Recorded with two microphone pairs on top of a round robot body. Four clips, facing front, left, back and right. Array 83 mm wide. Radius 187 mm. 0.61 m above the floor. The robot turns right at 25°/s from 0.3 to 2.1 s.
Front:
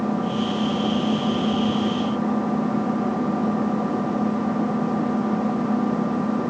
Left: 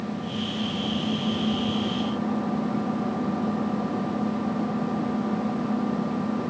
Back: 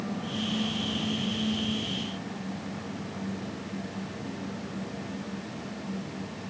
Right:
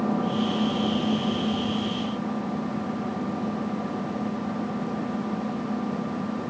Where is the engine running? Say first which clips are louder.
Right 6 dB, front 10 dB; 35° right; by 6.5 s 10° left.